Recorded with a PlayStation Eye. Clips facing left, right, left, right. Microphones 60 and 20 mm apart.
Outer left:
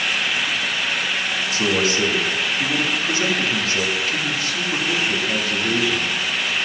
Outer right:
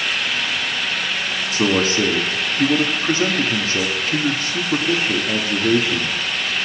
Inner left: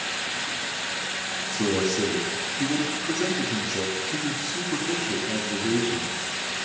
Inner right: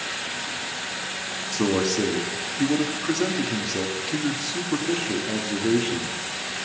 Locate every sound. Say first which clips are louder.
1.5 s a man speaking: outer right 3 dB, inner right 2 dB; 35° right (ahead or behind), 1.7 m